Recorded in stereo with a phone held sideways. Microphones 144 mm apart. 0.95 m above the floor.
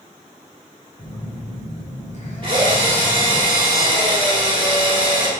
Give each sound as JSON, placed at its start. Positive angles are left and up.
{"t": 1.0, "sound": "a phone buzzing", "side_deg": 60, "distance_m": 2.5}
{"t": 2.4, "sound": "a drill", "side_deg": -35, "distance_m": 2.5}